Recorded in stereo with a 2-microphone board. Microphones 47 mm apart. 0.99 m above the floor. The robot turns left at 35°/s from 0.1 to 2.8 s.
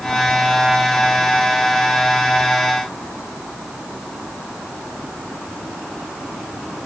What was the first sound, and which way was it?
Only background noise.